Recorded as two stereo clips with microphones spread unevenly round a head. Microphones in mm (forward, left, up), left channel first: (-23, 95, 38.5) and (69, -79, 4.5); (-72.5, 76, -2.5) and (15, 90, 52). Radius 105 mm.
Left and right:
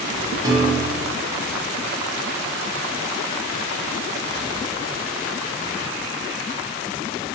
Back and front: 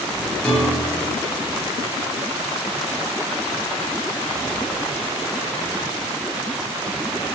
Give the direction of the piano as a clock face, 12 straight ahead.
12 o'clock.